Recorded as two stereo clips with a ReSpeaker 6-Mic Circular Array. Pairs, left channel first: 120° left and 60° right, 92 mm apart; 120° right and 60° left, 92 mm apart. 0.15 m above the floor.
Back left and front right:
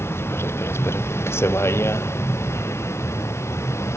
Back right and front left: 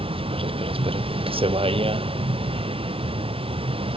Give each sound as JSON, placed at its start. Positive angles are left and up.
{"t": 0.0, "sound": "a vehicle", "azimuth_deg": 55}